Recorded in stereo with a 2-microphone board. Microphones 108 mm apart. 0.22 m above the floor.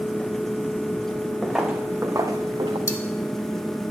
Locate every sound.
1.4 s footsteps: 5° left (ahead or behind), 1.0 m; by 2.8 s 50° right (ahead or behind), 1.1 m
2.9 s cutlery clinking: 30° left (ahead or behind), 0.9 m